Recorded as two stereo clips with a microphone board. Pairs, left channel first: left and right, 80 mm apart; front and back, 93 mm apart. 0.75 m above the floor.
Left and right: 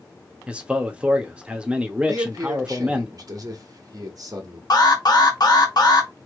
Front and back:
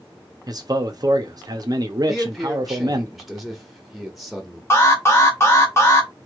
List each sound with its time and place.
0.5 s a man speaking: 160° right, 0.8 m
2.1 s a man speaking: 90° right, 1.5 m
4.7 s an alarm: 60° left, 1.3 m